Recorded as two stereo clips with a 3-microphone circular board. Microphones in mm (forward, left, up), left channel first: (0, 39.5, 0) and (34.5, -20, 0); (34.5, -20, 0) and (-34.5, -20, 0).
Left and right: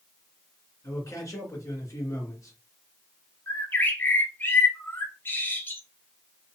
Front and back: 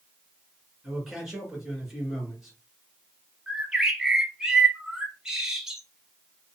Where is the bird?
105° left, 0.7 m.